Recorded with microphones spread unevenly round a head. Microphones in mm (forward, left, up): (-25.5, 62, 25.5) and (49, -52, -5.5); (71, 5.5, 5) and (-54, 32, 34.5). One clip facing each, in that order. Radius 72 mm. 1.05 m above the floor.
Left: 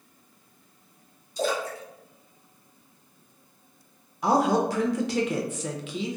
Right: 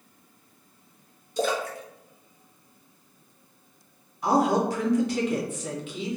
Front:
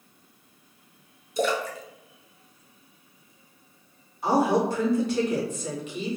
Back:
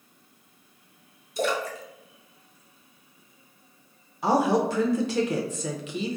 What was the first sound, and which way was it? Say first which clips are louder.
A splash: right 1 dB, front 1 dB; 15° right.